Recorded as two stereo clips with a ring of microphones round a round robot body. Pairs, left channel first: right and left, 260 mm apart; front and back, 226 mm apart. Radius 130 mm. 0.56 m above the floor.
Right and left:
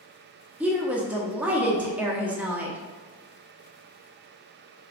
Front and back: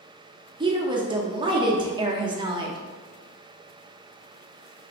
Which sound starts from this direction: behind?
A woman speaking, at 0.6 s.